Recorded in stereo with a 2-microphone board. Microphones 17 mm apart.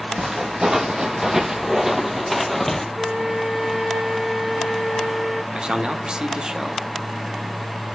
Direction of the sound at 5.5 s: 50° right (ahead or behind).